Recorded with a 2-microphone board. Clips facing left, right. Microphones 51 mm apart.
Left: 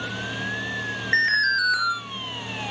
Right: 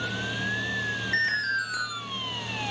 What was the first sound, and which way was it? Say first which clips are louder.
An alarm: left 7 dB; 65° left (ahead or behind).